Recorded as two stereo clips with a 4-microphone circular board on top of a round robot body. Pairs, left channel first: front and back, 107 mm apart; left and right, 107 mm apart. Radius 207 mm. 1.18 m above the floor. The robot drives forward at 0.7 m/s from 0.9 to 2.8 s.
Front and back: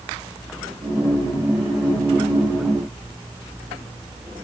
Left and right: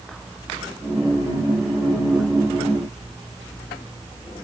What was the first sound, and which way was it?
Only background noise.